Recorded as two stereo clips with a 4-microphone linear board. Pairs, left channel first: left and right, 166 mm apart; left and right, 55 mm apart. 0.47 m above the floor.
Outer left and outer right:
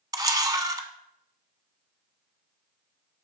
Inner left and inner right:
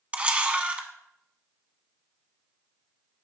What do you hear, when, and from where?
0.1 s a camera shutter: 25° right (ahead or behind), 0.8 m